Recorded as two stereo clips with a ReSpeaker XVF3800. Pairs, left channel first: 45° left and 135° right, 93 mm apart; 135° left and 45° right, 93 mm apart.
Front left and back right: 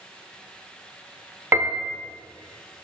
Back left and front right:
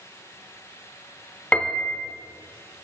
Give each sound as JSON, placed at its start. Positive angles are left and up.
{"t": 1.5, "sound": "a piano", "azimuth_deg": -165, "distance_m": 0.6}